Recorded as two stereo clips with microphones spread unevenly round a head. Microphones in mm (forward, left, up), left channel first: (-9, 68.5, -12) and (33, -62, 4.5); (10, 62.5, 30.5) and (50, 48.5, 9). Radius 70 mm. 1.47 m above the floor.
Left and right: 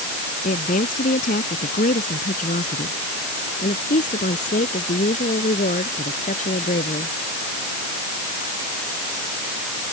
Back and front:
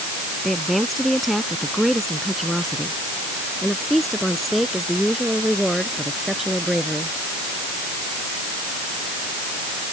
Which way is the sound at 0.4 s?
75° left.